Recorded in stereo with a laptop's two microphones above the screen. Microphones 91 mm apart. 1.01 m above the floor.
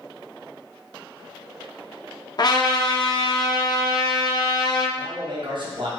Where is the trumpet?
45° left (ahead or behind), 0.6 m.